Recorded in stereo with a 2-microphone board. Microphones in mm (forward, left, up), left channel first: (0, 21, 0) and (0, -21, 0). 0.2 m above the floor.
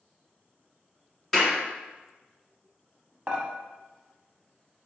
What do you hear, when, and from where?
1.3 s a clap: 5° left (ahead or behind), 1.4 m
3.3 s dishes clattering: 20° right (ahead or behind), 0.7 m